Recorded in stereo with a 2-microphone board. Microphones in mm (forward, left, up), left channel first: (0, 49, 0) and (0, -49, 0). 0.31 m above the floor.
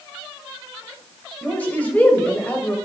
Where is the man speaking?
15° left (ahead or behind), 1.8 m.